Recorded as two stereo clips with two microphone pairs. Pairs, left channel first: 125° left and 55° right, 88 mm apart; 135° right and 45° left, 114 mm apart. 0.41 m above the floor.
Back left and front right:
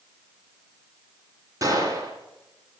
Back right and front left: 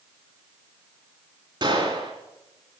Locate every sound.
1.6 s a gunshot: 5° right, 2.5 m